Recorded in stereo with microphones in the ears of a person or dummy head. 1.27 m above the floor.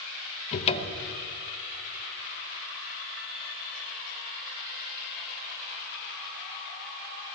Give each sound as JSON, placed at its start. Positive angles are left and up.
{"t": 0.5, "sound": "a cupboard door", "side_deg": 45, "distance_m": 0.8}